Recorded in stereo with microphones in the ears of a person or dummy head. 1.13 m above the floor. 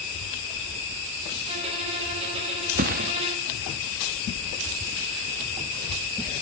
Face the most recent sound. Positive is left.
turn(degrees=-50)  # may be behind; listen again after turning